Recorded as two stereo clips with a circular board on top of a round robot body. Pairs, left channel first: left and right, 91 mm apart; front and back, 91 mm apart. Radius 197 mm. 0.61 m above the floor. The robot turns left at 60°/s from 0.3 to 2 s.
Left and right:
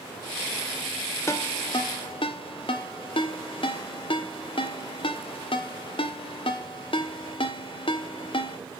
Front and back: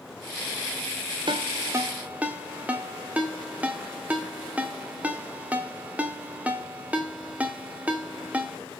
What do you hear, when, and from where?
1.3 s a ringtone: 150° left, 1.7 m; by 8.6 s 105° left, 1.7 m